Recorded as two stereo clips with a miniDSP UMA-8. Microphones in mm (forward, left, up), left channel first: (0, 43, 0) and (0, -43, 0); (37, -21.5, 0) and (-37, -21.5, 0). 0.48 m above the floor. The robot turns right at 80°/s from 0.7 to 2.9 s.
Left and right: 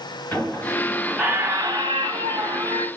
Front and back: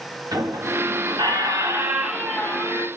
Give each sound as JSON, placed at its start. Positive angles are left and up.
{"t": 0.3, "sound": "a squeak", "azimuth_deg": 155, "distance_m": 0.9}